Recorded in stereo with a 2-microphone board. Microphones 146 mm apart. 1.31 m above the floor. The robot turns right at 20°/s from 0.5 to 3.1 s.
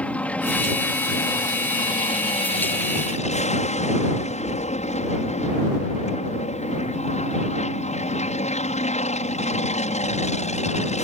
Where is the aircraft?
10° left; by 11.0 s 60° left.